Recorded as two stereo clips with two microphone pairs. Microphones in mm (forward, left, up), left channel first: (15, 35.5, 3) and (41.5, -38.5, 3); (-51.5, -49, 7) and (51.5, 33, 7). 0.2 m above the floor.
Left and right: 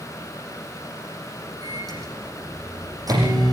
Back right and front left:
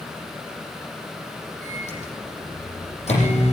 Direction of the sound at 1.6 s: 110° right.